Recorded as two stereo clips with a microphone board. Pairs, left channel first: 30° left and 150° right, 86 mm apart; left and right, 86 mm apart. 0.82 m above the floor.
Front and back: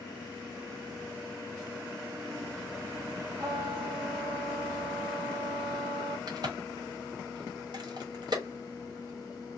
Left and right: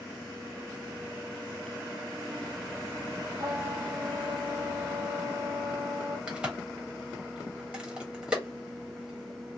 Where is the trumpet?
120° right, 1.4 m.